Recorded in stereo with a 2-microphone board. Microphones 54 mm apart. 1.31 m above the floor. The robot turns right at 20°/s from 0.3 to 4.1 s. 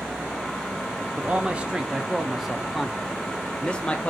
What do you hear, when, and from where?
1.2 s a man speaking: 30° right, 0.5 m; by 4.1 s 30° left, 0.5 m